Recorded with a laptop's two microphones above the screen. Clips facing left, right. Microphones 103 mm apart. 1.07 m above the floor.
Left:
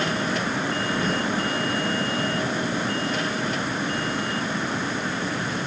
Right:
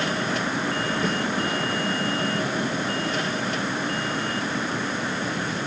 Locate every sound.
1.0 s a snare drum: centre (ahead or behind), 9.5 m